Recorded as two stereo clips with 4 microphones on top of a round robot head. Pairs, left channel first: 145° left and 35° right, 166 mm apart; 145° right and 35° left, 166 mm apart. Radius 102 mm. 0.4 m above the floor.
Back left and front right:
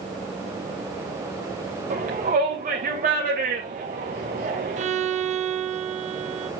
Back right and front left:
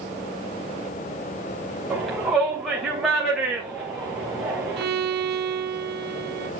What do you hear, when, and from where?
1.9 s a shout: 55° right, 2 m
4.8 s a violin: 10° left, 1.1 m